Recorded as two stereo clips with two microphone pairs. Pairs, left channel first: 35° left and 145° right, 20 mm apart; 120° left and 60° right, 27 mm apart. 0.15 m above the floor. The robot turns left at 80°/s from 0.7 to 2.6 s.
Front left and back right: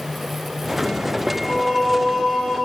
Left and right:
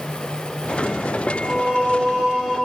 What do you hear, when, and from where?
1.3 s singing: 25° right, 1.4 m; by 2.6 s 120° right, 1.4 m